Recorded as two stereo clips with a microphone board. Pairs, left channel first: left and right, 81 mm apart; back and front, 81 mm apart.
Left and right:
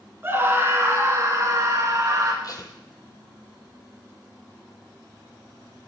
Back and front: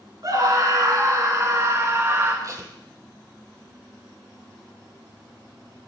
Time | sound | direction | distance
0.2 | a scream | 35° right | 4 m
2.4 | tape being pulled | 45° left | 1.9 m